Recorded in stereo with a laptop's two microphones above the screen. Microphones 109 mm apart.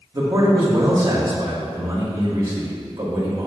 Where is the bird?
No bird in this recording.